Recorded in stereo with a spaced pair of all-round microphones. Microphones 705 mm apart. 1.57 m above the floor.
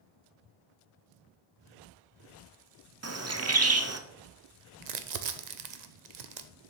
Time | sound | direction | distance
3.0 | a bird | 25° right (ahead or behind) | 0.5 m
4.8 | crumpling | 70° right (ahead or behind) | 0.7 m